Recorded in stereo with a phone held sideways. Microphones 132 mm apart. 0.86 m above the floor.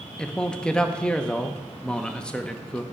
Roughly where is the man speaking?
Centre.